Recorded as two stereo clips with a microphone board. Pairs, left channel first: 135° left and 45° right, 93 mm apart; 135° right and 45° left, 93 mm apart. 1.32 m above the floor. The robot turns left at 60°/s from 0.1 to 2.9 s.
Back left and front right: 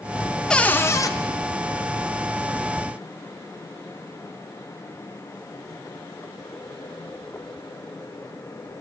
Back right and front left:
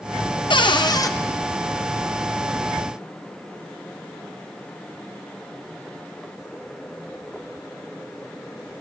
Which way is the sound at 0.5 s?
145° right.